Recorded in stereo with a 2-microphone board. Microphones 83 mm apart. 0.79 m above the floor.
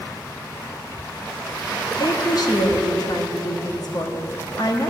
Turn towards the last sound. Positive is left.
turn(degrees=50)  # may be behind; listen again after turning